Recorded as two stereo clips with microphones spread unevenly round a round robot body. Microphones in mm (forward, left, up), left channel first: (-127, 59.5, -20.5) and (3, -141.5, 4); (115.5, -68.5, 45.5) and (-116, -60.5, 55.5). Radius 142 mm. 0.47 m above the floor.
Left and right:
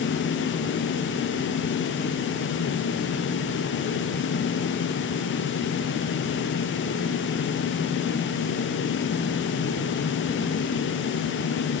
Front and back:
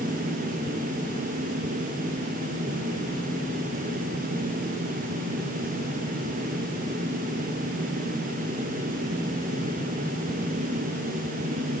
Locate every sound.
Only background noise.